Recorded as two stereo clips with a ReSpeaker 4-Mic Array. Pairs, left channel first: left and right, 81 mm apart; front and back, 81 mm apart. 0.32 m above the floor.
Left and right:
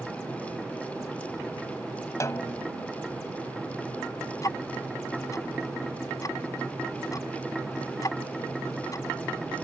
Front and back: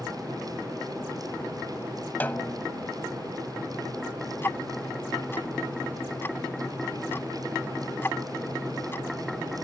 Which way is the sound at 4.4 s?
60° left.